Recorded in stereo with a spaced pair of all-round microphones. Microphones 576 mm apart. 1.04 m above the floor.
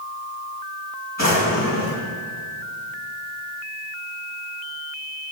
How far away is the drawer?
About 6 m.